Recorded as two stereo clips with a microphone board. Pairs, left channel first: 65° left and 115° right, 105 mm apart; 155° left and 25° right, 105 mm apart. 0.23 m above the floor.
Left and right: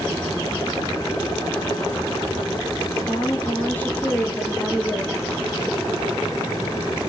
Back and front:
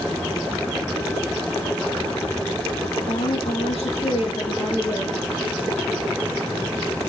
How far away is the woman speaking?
About 5.5 m.